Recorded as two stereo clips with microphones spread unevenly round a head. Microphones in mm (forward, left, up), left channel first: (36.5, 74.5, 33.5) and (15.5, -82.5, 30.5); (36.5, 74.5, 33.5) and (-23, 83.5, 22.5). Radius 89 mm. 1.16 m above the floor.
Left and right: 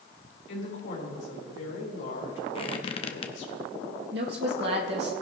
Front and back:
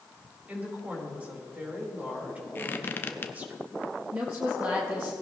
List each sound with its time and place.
0.5 s a woman speaking: 105° left, 4 m
2.5 s a squeak: 30° left, 0.7 m
4.1 s a woman speaking: 120° right, 2 m